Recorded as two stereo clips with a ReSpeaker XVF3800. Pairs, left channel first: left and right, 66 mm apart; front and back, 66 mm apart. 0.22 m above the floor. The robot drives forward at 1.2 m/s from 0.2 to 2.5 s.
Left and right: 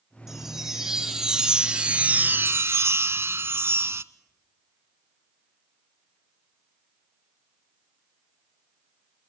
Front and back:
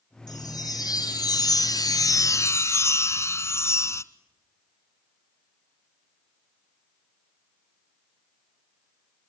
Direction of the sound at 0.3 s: 5° right.